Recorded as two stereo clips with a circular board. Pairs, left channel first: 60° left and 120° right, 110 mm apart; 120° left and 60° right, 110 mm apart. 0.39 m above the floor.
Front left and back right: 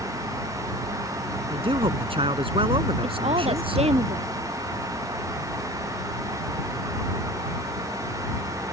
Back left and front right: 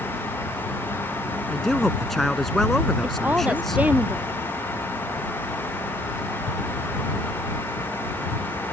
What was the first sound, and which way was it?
A man speaking, 155° right.